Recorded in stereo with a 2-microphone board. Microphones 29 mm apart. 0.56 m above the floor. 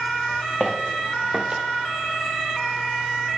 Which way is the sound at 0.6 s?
10° left (ahead or behind).